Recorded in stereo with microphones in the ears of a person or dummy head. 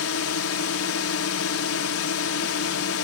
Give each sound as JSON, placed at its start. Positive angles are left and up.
{"t": 0.0, "sound": "a drone", "side_deg": 70}